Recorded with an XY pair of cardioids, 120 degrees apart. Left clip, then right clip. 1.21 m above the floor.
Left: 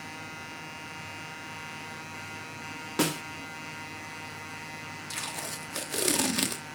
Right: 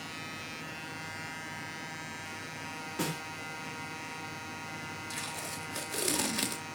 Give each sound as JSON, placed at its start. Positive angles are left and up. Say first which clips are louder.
{"t": 3.0, "sound": "a snare drum", "louder": "left 7 dB", "azimuth_deg": 55, "distance_m": 2.0}
{"t": 5.1, "sound": "tape being pulled", "louder": "left 5 dB", "azimuth_deg": 25, "distance_m": 1.6}